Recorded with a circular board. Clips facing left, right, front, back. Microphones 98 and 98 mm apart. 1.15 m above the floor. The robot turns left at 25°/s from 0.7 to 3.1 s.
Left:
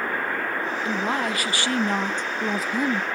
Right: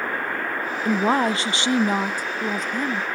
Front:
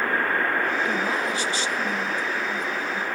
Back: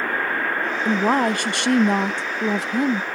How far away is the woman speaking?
About 0.5 m.